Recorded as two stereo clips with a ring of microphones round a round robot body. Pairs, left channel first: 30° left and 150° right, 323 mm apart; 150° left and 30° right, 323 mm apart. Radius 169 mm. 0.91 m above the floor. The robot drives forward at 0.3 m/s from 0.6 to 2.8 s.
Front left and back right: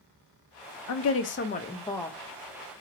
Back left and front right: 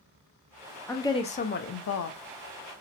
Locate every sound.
0.9 s a woman speaking: 65° left, 0.5 m; by 2.2 s 115° left, 0.5 m